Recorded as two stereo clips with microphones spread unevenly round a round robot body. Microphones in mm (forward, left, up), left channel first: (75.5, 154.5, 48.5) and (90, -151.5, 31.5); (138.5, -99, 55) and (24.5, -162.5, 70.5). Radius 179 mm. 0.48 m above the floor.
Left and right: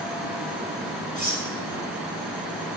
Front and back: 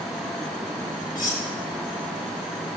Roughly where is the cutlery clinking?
Ahead left.